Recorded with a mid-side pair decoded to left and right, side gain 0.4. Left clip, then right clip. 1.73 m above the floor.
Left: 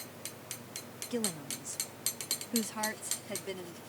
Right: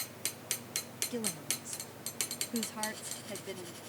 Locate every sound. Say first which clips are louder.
1.1 s a woman speaking: left 4 dB; 25° left